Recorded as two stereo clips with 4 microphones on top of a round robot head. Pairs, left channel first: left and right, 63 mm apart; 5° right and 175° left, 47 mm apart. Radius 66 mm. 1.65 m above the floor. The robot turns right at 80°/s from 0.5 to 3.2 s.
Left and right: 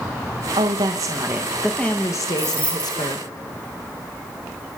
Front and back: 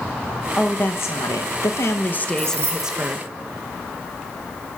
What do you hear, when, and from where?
0.6 s a woman speaking: 85° right, 1.8 m; by 3.3 s 125° left, 1.8 m
2.4 s keys jangling: 135° left, 9.5 m; by 3.1 s 160° right, 9.5 m